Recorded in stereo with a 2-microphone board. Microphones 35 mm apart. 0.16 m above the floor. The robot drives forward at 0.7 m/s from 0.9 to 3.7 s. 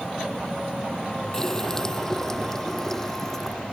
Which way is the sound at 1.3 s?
10° left (ahead or behind).